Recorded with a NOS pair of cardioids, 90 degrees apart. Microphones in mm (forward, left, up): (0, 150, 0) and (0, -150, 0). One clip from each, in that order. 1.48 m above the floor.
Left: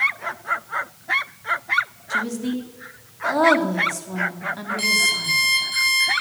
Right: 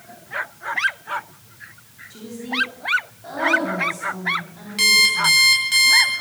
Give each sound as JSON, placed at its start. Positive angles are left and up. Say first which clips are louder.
{"t": 2.1, "sound": "a woman speaking", "louder": "left 2 dB", "azimuth_deg": 70, "distance_m": 3.5}
{"t": 4.8, "sound": "an alarm clock", "louder": "right 5 dB", "azimuth_deg": -65, "distance_m": 6.5}